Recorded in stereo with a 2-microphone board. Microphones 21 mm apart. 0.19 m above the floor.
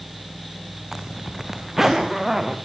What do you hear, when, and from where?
0.9 s a zipper: 15° right (ahead or behind), 3 m